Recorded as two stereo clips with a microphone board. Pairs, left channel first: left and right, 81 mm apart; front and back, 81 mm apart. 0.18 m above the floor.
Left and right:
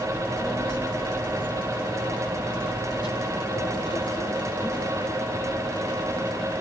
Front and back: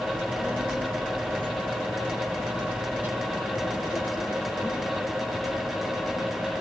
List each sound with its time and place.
0.1 s a child speaking: 110° left, 4.5 m